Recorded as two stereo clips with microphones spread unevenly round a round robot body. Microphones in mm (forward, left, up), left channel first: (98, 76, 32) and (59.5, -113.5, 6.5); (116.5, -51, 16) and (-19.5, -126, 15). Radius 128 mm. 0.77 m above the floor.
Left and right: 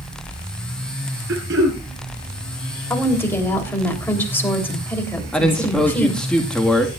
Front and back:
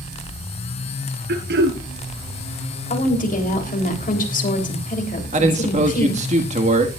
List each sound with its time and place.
1.3 s throat clearing: 155° right, 2.5 m
2.9 s a woman speaking: straight ahead, 3.5 m
5.3 s a man speaking: 170° left, 1.5 m